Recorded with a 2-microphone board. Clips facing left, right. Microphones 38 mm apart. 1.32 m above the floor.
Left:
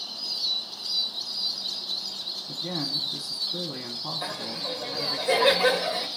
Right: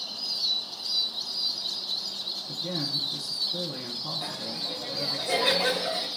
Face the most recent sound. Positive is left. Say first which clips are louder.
# left 2 dB
turn(degrees=20)  # may be behind; listen again after turning